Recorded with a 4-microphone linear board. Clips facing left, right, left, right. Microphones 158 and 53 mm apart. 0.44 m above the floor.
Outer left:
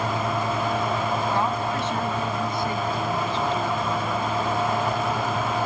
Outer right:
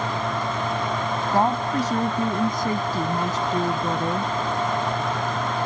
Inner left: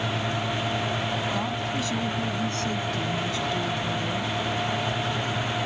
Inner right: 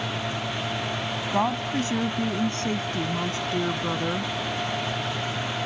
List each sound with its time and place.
1.3 s a woman speaking: 40° right (ahead or behind); by 4.3 s 45° right (ahead or behind)